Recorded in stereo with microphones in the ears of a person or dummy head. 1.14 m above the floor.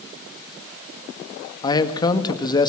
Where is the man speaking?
25° left (ahead or behind), 1.8 m.